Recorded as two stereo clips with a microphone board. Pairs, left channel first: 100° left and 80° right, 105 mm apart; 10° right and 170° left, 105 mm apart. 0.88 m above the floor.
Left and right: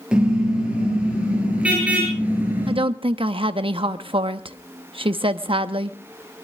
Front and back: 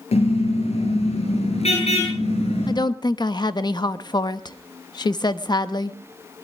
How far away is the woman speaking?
About 1.0 m.